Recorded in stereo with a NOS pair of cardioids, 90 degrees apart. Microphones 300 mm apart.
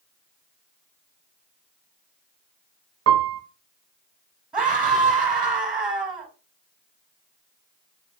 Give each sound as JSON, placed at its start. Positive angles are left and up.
{"t": 3.1, "sound": "a piano", "azimuth_deg": -50, "distance_m": 0.6}
{"t": 4.5, "sound": "a scream", "azimuth_deg": -5, "distance_m": 1.0}